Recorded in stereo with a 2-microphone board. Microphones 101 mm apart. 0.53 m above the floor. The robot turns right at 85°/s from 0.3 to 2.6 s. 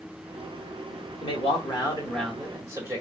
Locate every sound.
1.2 s a man speaking: 90° left, 1.8 m; by 3.0 s 155° right, 1.8 m